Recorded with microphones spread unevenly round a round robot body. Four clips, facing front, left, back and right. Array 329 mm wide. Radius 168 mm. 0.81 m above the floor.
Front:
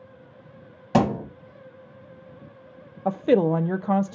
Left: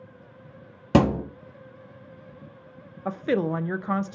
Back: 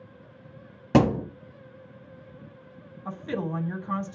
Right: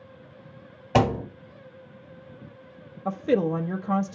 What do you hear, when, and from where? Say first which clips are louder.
0.9 s a thud: left 2 dB, back 1 dB; 110° left, 2.5 m
3.0 s a woman speaking: right 2 dB, front 12 dB; straight ahead, 0.6 m